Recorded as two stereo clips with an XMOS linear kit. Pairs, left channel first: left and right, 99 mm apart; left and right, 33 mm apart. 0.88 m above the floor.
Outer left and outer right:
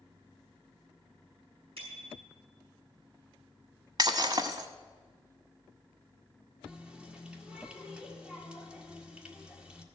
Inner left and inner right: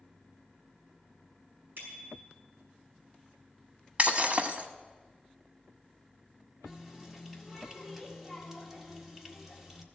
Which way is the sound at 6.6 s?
10° right (ahead or behind).